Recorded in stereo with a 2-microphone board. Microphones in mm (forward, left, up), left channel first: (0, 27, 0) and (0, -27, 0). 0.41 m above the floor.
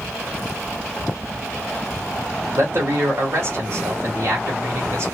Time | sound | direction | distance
2.5 | a man speaking | 55° right (ahead or behind) | 1.7 m